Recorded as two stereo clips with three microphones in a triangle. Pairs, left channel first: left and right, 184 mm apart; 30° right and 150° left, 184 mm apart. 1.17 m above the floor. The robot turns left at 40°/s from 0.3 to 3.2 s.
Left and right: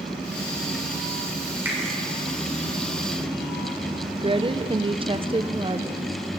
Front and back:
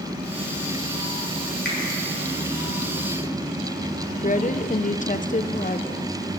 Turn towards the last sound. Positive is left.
turn(degrees=-40)